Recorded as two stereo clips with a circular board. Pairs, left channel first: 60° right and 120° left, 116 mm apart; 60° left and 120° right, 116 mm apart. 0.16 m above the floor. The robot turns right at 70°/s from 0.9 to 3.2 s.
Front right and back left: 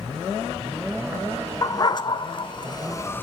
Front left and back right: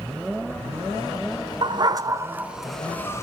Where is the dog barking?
105° right, 0.8 m; by 3.2 s 5° left, 0.8 m.